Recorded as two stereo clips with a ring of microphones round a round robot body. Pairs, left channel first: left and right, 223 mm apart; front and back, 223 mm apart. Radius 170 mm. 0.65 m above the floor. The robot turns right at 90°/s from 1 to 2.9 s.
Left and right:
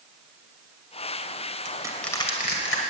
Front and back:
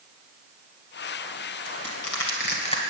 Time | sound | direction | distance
1.6 | crushing | 30° right | 2.5 m